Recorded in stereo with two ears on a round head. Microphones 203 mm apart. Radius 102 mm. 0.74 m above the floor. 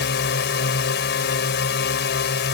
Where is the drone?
50° left (ahead or behind).